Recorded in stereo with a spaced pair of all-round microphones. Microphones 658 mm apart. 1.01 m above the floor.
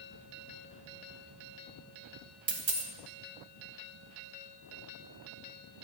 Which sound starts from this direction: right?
A dropped coin, at 2.5 s.